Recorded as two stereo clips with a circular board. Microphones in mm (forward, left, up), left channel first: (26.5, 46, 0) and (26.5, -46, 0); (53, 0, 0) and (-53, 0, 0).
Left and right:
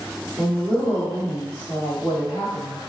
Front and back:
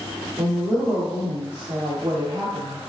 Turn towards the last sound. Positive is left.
turn(degrees=145)